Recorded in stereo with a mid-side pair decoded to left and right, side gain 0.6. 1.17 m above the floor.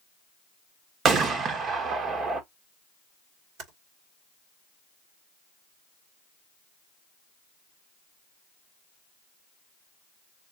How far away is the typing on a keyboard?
About 2.5 m.